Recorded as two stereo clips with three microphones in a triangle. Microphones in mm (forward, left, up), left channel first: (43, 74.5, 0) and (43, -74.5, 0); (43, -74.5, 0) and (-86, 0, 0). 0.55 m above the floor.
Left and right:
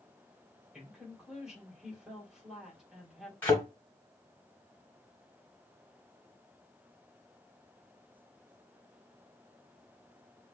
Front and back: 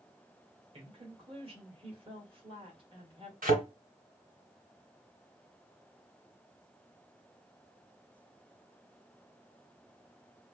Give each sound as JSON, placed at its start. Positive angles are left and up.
{"t": 0.7, "sound": "a woman speaking", "azimuth_deg": -175, "distance_m": 1.7}
{"t": 3.4, "sound": "a thud", "azimuth_deg": 165, "distance_m": 2.0}